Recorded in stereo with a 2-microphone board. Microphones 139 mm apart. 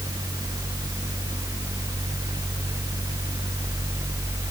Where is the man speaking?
I don't hear a man speaking.